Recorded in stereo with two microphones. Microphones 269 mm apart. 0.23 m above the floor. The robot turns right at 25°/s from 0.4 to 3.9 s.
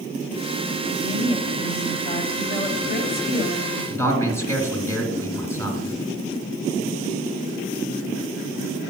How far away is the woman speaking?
About 1.6 m.